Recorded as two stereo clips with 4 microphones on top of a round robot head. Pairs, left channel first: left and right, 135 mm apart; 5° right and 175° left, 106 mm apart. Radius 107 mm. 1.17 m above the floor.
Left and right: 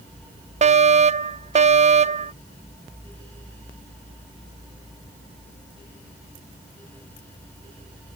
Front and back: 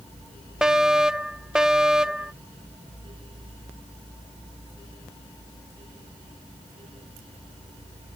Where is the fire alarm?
105° right.